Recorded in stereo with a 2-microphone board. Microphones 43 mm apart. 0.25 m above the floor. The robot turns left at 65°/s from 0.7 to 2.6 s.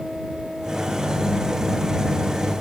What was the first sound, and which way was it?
Only background noise.